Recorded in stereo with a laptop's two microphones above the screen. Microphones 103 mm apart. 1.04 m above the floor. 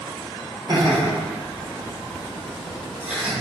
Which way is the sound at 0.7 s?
40° right (ahead or behind).